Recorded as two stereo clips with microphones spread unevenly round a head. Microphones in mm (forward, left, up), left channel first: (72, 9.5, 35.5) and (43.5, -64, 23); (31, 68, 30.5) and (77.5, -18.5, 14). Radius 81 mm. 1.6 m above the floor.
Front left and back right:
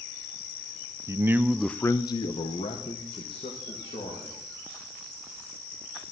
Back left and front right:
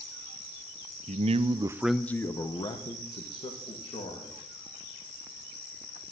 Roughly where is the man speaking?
Ahead right.